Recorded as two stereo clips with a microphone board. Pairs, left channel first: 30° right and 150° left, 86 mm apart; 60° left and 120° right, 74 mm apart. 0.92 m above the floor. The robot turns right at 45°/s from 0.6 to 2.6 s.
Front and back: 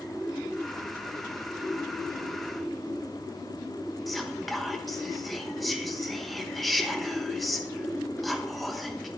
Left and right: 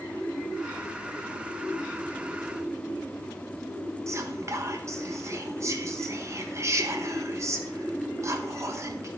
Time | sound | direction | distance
4.1 | whispering | 120° right | 1.1 m